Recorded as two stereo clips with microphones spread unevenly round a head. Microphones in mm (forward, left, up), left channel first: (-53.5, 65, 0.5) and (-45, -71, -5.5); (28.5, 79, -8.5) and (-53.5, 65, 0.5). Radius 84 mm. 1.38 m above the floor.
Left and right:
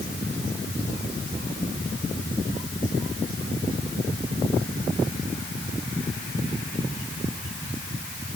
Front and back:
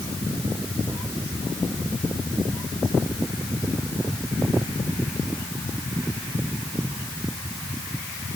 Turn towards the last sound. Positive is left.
No sound to turn to.